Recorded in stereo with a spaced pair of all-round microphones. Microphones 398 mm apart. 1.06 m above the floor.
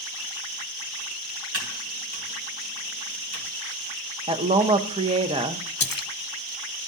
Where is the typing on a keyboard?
70° right (ahead or behind), 1.8 m.